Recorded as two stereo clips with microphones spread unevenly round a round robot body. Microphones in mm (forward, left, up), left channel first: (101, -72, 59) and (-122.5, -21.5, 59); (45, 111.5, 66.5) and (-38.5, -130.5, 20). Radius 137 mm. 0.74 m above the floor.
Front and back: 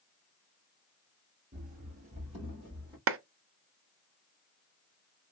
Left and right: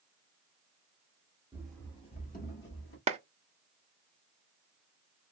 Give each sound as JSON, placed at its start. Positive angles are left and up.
{"t": 1.5, "sound": "running footsteps", "azimuth_deg": 160, "distance_m": 0.8}
{"t": 3.1, "sound": "a clap", "azimuth_deg": -170, "distance_m": 0.6}